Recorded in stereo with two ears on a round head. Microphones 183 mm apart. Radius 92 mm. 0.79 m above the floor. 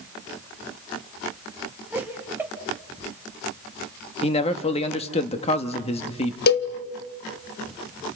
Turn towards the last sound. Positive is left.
turn(degrees=50)  # may be behind; listen again after turning